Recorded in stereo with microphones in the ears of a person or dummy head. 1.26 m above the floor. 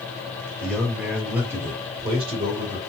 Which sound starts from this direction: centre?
A man speaking, at 0.6 s.